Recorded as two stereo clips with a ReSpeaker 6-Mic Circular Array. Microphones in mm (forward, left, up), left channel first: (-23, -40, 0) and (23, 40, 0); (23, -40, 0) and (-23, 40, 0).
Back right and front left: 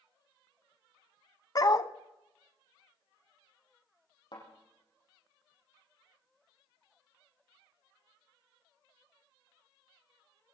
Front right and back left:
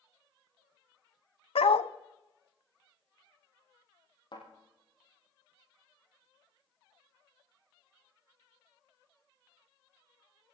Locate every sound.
1.6 s a dog barking: 70° right, 0.6 m
4.3 s a thud: 95° right, 7.5 m